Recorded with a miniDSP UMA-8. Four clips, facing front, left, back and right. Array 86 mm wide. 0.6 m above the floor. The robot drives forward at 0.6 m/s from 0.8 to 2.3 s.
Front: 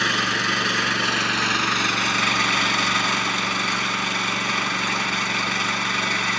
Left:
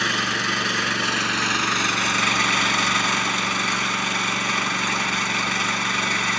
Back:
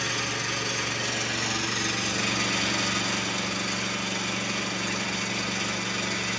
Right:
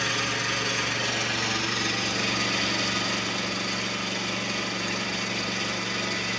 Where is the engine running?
35° left, 2.5 m; by 6.4 s 50° left, 2 m.